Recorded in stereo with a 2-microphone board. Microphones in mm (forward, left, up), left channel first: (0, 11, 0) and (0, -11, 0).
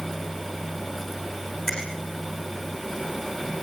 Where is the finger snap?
30° left (ahead or behind), 9.5 m.